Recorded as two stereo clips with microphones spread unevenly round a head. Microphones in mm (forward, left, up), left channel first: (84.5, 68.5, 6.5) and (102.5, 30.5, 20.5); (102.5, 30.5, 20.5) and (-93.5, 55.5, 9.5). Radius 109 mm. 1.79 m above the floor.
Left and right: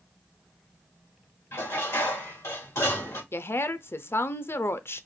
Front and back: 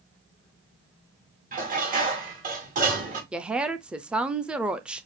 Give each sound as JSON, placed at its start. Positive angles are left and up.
{"t": 1.5, "sound": "dishes clattering", "azimuth_deg": 125, "distance_m": 2.5}
{"t": 3.3, "sound": "a woman speaking", "azimuth_deg": 85, "distance_m": 0.6}